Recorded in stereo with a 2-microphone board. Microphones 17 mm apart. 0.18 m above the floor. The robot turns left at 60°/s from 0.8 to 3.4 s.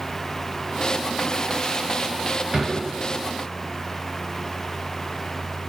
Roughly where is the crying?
I don't hear crying.